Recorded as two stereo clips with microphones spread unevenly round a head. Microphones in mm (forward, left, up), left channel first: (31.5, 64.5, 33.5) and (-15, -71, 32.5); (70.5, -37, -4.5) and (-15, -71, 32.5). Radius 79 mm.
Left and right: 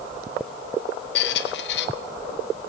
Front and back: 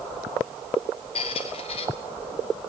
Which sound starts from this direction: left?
A squeak, at 1.1 s.